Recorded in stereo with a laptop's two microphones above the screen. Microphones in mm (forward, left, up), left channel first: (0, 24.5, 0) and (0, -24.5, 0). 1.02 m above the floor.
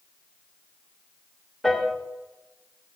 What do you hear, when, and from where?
1.6 s a piano: 5° left (ahead or behind), 0.8 m